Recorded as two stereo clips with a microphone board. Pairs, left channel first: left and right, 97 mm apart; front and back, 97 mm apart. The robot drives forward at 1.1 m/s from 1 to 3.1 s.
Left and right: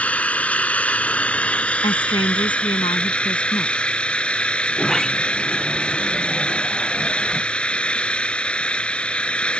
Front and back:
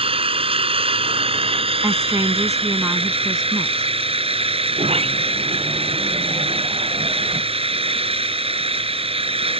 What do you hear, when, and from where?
0.0 s an engine running: 165° left; by 9.6 s 170° left
1.8 s a woman speaking: 120° left; by 3.9 s 130° left
4.7 s a sliding door: 175° left